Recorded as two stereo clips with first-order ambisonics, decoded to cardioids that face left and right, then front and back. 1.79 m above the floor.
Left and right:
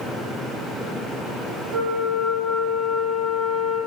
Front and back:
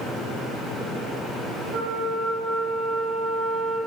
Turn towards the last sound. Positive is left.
turn(degrees=-165)